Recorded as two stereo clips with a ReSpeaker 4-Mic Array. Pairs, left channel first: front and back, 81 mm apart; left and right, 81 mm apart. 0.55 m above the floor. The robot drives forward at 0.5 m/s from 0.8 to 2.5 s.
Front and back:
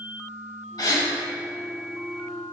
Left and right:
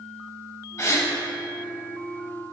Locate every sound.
0.8 s a gasp: 35° left, 0.7 m; by 1.1 s 45° left, 0.6 m